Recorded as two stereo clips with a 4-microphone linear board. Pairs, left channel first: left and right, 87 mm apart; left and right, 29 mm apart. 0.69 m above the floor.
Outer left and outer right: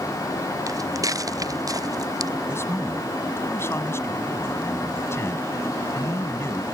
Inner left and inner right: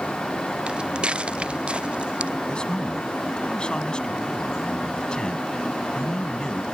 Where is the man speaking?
30° left (ahead or behind).